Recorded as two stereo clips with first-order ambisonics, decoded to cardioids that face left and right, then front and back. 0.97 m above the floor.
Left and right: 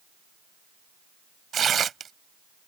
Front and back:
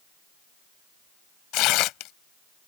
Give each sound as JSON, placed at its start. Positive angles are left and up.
{"t": 1.5, "sound": "tearing paper", "azimuth_deg": -25}